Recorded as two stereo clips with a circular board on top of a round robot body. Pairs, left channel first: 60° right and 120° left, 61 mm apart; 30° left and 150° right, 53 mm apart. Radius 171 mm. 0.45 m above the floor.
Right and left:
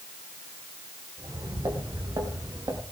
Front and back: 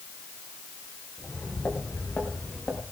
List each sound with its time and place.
1.2 s footsteps: 85° left, 5 m; by 2.8 s 95° left, 5.5 m